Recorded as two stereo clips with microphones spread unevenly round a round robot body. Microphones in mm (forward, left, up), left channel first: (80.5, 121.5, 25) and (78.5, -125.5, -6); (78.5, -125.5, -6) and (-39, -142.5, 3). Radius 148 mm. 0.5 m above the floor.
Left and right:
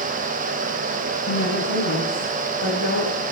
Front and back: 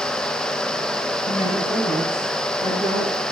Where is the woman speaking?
150° left, 4.5 m; by 3.1 s 120° left, 2.5 m.